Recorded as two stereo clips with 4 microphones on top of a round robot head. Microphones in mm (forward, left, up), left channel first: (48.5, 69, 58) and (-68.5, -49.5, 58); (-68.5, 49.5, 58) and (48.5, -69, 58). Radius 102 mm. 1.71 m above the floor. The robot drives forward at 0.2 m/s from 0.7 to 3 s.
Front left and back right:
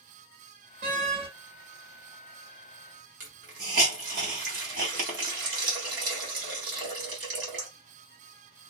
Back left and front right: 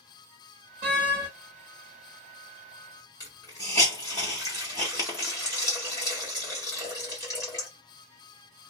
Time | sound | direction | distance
0.8 | a door slam | 95° right | 1.1 m
3.2 | a hiss | 155° right | 1.3 m